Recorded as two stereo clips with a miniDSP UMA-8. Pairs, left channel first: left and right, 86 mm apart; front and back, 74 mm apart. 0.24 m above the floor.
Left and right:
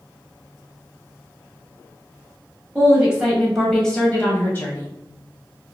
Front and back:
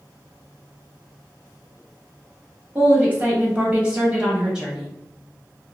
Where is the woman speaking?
135° right, 1.4 m; by 4.9 s 105° left, 1.4 m.